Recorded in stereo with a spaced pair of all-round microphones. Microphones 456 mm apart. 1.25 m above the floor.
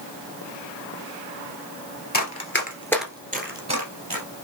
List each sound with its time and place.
2.1 s running footsteps: 40° left (ahead or behind), 1.6 m; by 4.2 s 50° right (ahead or behind), 1.9 m